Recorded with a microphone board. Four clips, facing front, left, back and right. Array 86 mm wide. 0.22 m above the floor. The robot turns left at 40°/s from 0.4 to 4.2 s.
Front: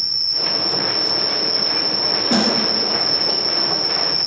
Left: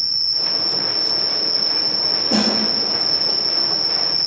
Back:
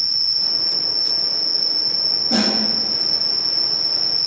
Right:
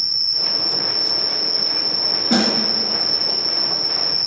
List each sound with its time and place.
0.0 s an insect: 150° right, 1.1 m; by 4.3 s 60° left, 1.1 m
2.3 s a snare drum: 65° right, 2 m; by 2.5 s 75° right, 2 m